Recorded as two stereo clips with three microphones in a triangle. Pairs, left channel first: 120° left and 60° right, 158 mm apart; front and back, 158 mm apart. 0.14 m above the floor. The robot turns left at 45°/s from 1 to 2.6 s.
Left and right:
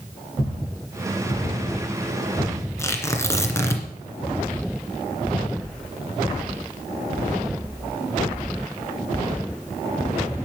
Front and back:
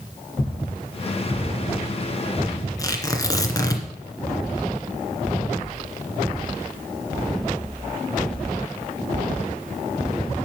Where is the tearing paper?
55° left, 2 m.